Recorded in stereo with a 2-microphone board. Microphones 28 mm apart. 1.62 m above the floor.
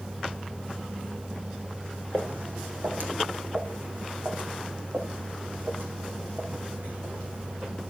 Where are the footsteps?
70° right (ahead or behind), 5.5 m; by 7.7 s 50° right (ahead or behind), 9.5 m.